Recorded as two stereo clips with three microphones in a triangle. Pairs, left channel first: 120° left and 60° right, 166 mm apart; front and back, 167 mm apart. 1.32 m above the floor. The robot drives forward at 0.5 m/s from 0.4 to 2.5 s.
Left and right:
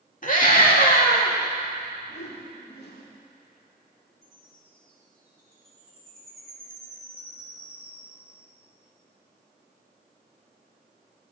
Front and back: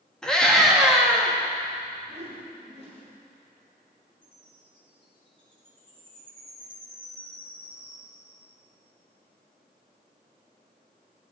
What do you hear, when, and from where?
0.2 s a scream: 85° left, 3 m; by 1.3 s 95° left, 3 m
2.1 s a whoosh: 130° left, 2.5 m; by 3.1 s 135° left, 2.5 m
4.2 s a chime: 120° left, 5.5 m